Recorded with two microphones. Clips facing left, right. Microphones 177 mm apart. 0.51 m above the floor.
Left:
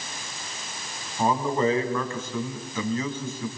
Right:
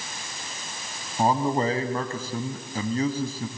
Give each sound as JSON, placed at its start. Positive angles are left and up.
{"t": 1.2, "sound": "a man speaking", "side_deg": -35, "distance_m": 3.0}